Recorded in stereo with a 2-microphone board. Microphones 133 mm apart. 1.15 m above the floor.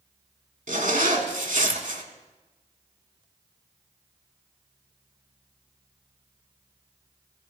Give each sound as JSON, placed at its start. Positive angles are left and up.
{"t": 0.7, "sound": "a zipper", "side_deg": -80, "distance_m": 1.8}